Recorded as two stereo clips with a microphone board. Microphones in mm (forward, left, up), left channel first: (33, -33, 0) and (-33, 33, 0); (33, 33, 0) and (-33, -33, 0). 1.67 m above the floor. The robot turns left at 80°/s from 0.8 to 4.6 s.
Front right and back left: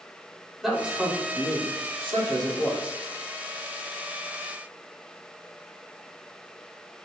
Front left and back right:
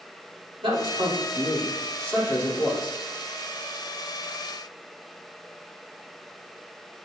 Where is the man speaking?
135° right, 4 m; by 2.9 s 55° left, 4 m.